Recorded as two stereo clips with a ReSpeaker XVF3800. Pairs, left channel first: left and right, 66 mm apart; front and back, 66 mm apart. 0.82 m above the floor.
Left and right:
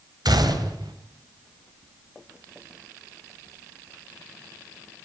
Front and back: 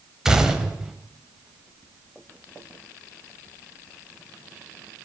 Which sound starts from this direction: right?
A gunshot, at 0.2 s.